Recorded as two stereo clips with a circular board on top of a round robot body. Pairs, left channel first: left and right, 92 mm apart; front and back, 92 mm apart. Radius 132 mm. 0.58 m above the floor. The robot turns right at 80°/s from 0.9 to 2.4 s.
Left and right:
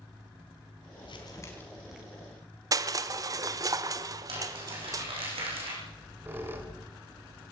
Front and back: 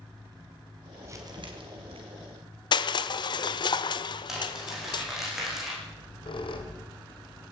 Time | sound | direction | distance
1.0 | crumpling | 115° left | 3 m
2.7 | crushing | 40° right | 0.9 m
4.3 | crumpling | 95° right | 8 m
5.8 | a squeak | 25° right | 2.5 m